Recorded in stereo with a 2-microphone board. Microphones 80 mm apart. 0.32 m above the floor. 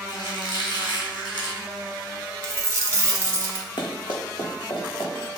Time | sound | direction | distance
0.1 | a squeak | 65° left (ahead or behind) | 1.8 m
2.4 | a dropped coin | 40° right (ahead or behind) | 0.8 m
3.8 | running footsteps | 65° left (ahead or behind) | 1.1 m